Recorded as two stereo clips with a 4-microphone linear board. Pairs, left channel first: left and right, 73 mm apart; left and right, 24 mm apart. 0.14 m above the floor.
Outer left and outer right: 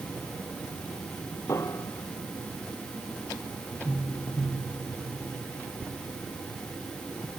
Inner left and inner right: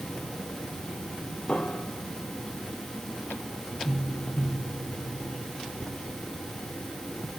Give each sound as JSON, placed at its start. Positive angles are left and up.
{"t": 1.5, "sound": "a piano", "side_deg": 40}